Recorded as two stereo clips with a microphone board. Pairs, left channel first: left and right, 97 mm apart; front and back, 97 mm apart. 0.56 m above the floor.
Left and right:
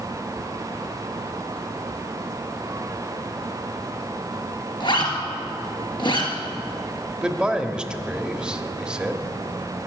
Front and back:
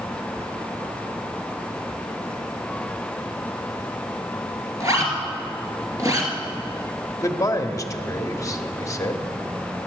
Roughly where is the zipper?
Behind left.